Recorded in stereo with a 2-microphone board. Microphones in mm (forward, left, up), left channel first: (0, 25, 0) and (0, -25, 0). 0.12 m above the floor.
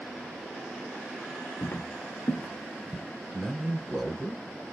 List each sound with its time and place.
1.6 s footsteps: 70° left (ahead or behind), 0.8 m; by 3.0 s 30° left (ahead or behind), 1.4 m
3.3 s a man speaking: 5° left (ahead or behind), 1.1 m